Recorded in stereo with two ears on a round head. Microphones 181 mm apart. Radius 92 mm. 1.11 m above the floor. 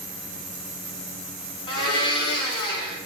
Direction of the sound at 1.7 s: 25° left (ahead or behind).